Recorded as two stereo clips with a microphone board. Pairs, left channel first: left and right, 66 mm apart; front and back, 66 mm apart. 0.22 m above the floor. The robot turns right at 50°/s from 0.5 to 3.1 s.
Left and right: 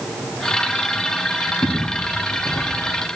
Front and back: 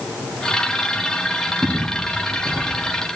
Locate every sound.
1.6 s footsteps: 100° left, 3.5 m; by 2.8 s 145° left, 2.5 m